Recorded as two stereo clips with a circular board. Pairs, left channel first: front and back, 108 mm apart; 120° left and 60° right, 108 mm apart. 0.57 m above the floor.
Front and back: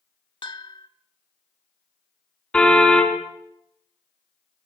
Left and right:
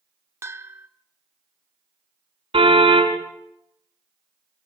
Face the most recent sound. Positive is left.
turn(degrees=-80)